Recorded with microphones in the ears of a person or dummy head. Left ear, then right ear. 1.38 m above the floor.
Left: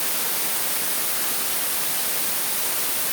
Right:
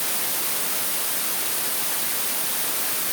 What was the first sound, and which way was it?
Only background noise.